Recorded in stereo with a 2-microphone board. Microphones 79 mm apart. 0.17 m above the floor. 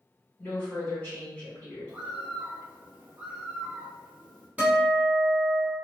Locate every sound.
0.4 s a woman speaking: 20° left (ahead or behind), 1.6 m
1.9 s a bird: 20° right (ahead or behind), 1.4 m
4.6 s a guitar: 20° right (ahead or behind), 1.0 m